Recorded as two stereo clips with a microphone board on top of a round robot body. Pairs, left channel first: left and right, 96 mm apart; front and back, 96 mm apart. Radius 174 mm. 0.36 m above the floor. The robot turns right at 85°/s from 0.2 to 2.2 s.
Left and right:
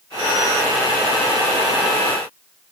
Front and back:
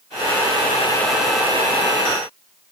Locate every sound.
Only background noise.